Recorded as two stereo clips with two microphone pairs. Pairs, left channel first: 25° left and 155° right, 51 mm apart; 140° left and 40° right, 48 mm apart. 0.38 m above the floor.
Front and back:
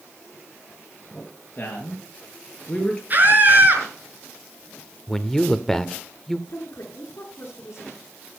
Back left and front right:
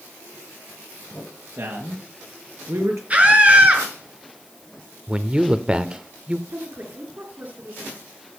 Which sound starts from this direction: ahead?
A woman speaking, at 6.5 s.